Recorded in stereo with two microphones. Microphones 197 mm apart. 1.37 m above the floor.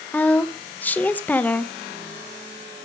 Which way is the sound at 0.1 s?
10° left (ahead or behind).